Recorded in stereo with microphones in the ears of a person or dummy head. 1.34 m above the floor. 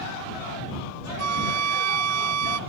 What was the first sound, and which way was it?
A flute, 80° right.